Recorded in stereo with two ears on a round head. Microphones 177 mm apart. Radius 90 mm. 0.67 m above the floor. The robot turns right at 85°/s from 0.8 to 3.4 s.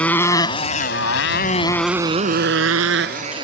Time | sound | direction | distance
0.0 | a motorcycle | 5° left (ahead or behind) | ?